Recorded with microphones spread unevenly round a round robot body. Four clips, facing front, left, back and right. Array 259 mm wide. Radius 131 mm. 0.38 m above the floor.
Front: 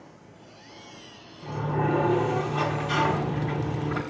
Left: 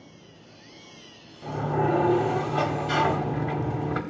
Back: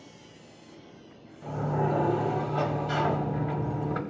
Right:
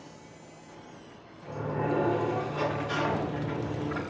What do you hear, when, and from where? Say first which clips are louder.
1.4 s a sliding door: left 6 dB, front 1 dB; 100° left, 1.1 m